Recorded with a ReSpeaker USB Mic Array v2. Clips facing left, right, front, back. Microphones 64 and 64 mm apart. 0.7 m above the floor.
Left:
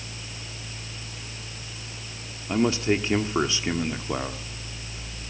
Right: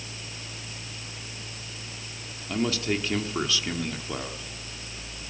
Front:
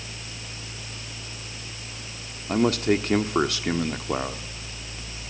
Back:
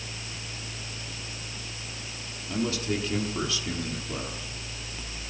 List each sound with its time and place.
2.5 s a man speaking: 25° left, 1.3 m